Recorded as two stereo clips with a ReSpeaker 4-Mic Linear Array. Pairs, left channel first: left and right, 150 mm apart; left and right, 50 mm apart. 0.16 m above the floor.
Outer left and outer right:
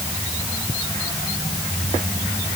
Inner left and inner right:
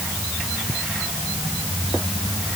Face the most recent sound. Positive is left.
No sound to turn to.